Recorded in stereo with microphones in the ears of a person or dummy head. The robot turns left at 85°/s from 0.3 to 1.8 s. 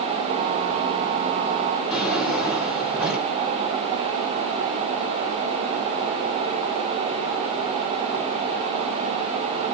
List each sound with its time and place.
1.9 s a drawer: centre (ahead or behind), 1.4 m